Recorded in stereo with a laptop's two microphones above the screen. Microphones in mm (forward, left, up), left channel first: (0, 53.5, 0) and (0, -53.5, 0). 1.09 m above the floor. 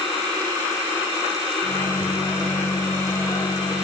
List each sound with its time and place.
1.6 s a microwave: 45° left (ahead or behind), 8 m